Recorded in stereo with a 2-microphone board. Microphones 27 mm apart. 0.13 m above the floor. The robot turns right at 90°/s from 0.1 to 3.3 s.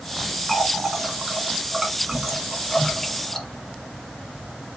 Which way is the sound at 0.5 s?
Centre (ahead or behind).